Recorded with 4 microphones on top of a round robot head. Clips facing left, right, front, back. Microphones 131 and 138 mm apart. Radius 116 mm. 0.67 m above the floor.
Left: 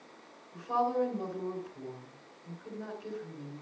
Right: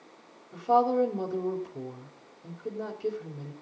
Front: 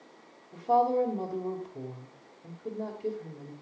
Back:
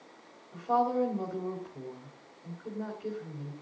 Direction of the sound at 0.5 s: 60° right.